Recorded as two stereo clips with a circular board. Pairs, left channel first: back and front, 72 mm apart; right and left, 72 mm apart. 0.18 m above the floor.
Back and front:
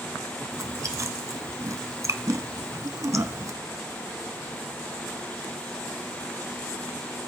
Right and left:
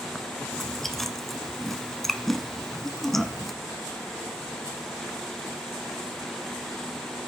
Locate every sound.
0.5 s chewing: 5° right, 1.0 m